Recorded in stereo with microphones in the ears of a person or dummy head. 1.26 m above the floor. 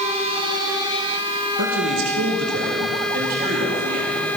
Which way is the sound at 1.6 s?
75° right (ahead or behind).